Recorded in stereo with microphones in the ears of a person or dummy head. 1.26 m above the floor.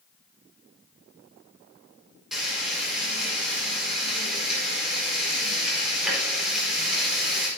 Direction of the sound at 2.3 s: 5° right (ahead or behind).